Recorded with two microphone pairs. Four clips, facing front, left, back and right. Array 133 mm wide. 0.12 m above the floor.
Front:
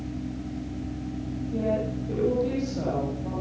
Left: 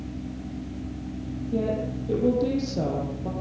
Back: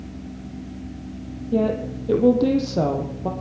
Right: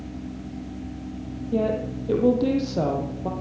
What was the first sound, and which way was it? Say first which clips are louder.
A woman speaking: right 3 dB, back 6 dB; 150° right.